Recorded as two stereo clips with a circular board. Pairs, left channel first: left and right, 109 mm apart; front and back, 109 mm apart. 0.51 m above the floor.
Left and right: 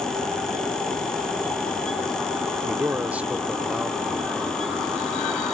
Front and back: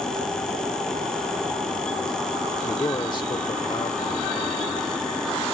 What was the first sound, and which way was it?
A man speaking, 40° right.